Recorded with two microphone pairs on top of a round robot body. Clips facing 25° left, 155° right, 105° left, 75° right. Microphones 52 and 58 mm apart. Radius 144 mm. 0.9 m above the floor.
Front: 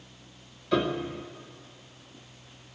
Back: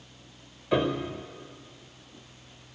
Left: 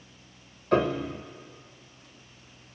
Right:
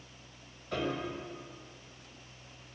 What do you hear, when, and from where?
0.7 s a piano: 135° left, 0.8 m